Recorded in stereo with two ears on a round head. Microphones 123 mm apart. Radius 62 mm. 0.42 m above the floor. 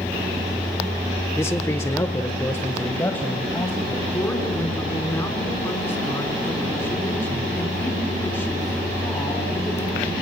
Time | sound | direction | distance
1.4 | a man speaking | 15° left (ahead or behind) | 0.8 m
4.1 | a woman speaking | 15° left (ahead or behind) | 4.5 m